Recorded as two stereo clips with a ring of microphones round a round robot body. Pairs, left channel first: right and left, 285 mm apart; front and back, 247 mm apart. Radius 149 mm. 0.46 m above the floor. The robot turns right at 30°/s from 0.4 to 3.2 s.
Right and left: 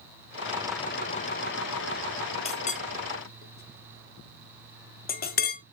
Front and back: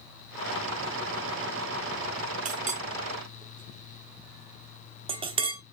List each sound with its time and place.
2.5 s a clink: 145° right, 0.9 m; by 5.6 s 125° right, 0.9 m